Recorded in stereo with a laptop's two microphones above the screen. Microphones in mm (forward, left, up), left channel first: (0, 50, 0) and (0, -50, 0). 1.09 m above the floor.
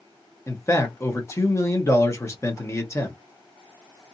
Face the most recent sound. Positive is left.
turn(degrees=30)  # may be behind; listen again after turning